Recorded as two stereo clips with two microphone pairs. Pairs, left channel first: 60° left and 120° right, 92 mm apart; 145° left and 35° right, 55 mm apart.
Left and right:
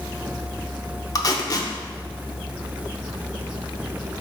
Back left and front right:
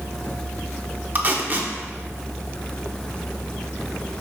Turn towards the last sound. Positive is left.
turn(degrees=15)